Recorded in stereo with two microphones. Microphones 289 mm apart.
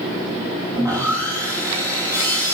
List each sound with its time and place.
0.8 s sawing: 10° right (ahead or behind), 3 m